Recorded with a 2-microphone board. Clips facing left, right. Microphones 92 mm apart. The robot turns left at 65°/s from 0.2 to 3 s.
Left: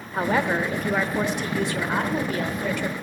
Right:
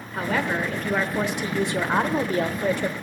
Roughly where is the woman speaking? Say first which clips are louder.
Left 2 dB; ahead left.